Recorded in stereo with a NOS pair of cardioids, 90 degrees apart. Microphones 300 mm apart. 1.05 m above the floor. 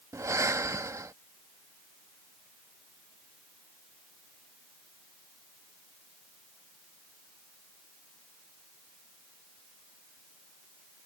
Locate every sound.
0.1 s breathing: 10° right